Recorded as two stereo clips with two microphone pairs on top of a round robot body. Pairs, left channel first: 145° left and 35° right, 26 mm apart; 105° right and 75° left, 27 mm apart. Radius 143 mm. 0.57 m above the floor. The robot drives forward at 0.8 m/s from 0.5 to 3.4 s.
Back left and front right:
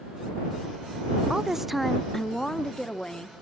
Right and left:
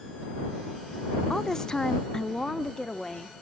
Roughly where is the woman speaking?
Ahead right.